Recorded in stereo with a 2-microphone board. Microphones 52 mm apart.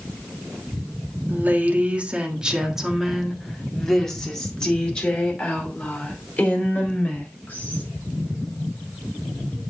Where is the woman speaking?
35° right (ahead or behind), 1.6 m; by 7.8 s 35° left (ahead or behind), 4 m.